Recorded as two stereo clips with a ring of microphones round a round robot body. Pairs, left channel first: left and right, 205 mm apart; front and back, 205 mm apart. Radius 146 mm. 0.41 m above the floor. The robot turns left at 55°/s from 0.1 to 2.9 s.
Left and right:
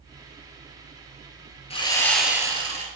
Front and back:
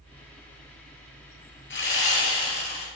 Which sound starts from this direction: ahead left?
Sawing, at 1.7 s.